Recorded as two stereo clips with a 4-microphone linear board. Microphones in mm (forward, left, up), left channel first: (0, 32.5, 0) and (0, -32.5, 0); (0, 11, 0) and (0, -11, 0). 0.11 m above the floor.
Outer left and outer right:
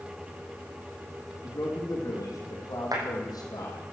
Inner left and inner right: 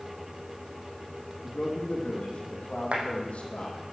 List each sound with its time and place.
1.4 s a man speaking: 55° left (ahead or behind), 5 m; by 3.9 s 65° left (ahead or behind), 4 m
2.9 s a clap: 70° right (ahead or behind), 4 m